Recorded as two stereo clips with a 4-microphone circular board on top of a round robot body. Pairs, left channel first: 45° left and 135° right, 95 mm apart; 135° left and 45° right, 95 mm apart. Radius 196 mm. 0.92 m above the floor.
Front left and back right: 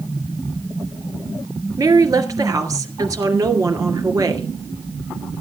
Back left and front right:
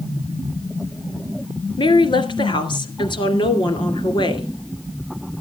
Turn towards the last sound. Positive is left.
turn(degrees=170)